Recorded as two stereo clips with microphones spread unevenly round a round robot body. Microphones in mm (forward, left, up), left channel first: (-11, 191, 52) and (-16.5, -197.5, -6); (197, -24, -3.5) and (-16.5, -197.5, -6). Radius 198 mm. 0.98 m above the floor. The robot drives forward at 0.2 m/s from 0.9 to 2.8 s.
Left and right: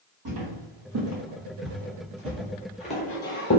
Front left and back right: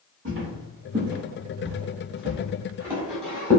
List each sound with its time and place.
0.2 s footsteps: 125° right, 1.5 m; by 3.6 s 95° left, 1.0 m